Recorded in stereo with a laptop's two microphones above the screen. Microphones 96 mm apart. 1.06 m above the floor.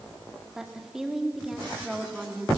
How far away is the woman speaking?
About 3 m.